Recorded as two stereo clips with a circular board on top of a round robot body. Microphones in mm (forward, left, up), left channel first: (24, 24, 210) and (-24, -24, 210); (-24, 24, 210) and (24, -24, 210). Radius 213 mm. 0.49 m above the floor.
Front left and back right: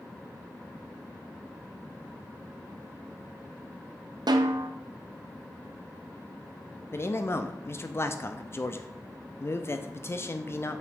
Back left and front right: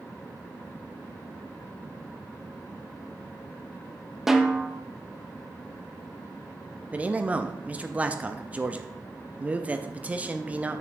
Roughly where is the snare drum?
Behind right.